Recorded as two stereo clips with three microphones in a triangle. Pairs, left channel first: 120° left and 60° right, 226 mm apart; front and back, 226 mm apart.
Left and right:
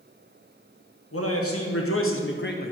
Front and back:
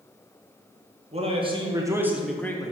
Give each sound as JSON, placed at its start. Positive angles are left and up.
{"t": 1.1, "sound": "a man speaking", "azimuth_deg": 120, "distance_m": 1.4}